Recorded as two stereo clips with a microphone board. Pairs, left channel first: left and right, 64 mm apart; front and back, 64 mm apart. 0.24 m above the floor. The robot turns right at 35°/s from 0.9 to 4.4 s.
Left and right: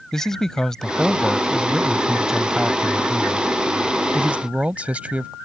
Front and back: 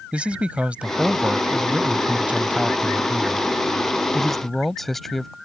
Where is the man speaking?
155° left; by 5.3 s 80° right.